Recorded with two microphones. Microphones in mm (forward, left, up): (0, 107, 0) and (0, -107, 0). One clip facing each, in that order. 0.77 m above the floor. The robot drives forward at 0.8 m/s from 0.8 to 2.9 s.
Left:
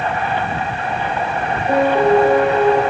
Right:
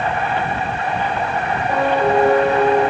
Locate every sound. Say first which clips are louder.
1.7 s a piano: left 4 dB; 85° left, 4.5 m; by 2.8 s 70° left (ahead or behind), 4.5 m